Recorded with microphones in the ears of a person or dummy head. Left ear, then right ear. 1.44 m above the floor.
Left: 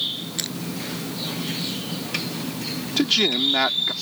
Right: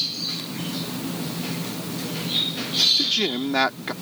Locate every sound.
0.4 s crushing: 50° left (ahead or behind)
3.0 s a man speaking: centre (ahead or behind)